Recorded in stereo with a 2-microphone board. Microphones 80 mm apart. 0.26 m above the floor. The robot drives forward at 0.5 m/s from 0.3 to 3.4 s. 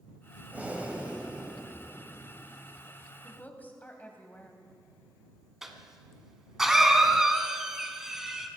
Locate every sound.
0.5 s breathing: 20° right (ahead or behind), 1.5 m; by 2.6 s 15° right (ahead or behind), 2 m
3.2 s a woman speaking: 20° left (ahead or behind), 1.7 m
5.6 s a cough: 5° right (ahead or behind), 1.8 m